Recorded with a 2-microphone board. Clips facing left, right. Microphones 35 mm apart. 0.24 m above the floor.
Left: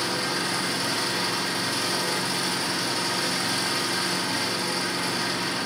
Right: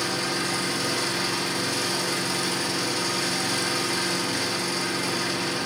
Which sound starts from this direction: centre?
An engine running, at 0.0 s.